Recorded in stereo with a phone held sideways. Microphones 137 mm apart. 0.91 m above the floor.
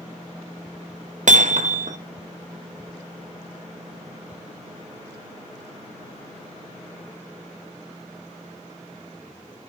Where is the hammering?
65° right (ahead or behind), 0.6 m.